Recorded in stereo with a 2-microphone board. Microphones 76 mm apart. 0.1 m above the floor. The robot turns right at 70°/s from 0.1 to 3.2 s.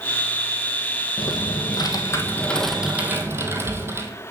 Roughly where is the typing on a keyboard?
Left.